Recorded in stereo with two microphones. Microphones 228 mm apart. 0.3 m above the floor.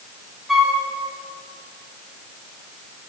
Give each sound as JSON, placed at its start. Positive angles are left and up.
{"t": 0.5, "sound": "a flute", "side_deg": 0, "distance_m": 2.5}